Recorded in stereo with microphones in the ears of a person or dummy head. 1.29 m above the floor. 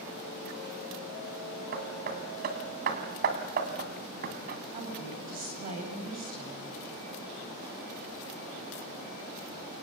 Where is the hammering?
55° right (ahead or behind), 2 m.